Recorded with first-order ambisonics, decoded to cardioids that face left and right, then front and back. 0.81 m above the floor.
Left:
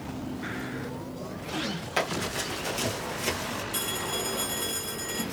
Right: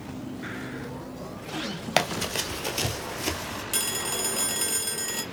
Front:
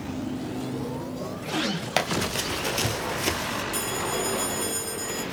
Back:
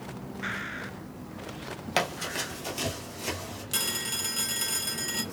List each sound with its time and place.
2.0 s running footsteps: 75° right, 1.1 m; by 3.6 s straight ahead, 1.0 m
3.7 s a phone ringing: 115° right, 1.1 m